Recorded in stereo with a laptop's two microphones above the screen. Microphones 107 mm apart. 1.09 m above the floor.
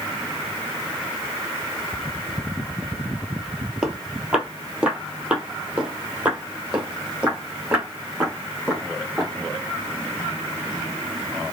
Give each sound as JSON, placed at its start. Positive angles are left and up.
{"t": 3.8, "sound": "footsteps", "side_deg": -5, "distance_m": 1.4}